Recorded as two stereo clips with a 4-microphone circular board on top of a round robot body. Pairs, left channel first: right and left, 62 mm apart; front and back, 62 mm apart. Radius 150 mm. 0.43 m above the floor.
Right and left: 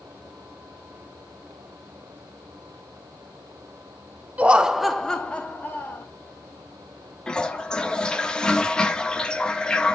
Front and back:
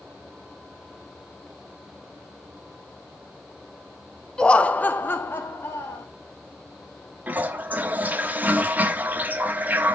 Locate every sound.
4.4 s laughter: 60° left, 1.2 m; by 6.0 s 40° right, 1.8 m
7.3 s a toilet flushing: 150° right, 1.3 m